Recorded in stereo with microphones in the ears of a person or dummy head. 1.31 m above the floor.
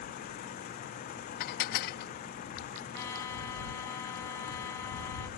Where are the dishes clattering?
60° left (ahead or behind).